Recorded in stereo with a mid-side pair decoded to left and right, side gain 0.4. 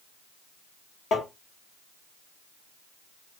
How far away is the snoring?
No snoring in this recording.